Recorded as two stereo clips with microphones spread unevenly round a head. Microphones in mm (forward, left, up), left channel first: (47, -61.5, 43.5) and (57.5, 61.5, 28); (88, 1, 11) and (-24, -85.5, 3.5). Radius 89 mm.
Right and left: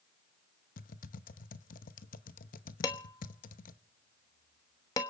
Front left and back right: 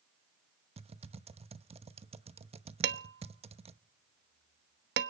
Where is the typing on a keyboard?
95° right, 0.9 m.